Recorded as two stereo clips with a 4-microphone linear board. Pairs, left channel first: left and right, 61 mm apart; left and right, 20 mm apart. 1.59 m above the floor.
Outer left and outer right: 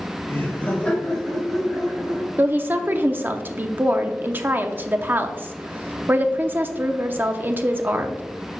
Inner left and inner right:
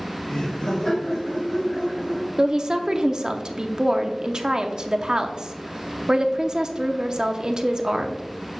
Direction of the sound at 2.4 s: 30° right (ahead or behind).